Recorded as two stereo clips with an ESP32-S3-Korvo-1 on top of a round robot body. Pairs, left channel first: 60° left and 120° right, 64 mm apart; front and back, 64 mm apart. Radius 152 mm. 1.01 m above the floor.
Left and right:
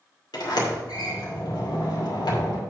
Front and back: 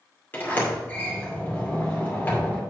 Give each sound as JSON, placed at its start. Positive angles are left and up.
{"t": 0.3, "sound": "a sliding door", "azimuth_deg": 65, "distance_m": 2.5}